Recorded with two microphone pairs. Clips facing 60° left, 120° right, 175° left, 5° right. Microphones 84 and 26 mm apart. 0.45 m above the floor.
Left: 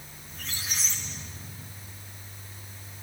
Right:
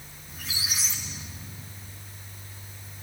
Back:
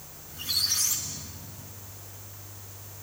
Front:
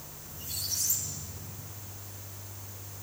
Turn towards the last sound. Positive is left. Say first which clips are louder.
# right 2 dB, back 9 dB
turn(degrees=155)